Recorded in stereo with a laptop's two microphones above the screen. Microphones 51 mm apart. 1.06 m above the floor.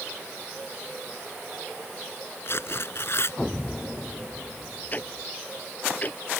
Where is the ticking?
35° left (ahead or behind).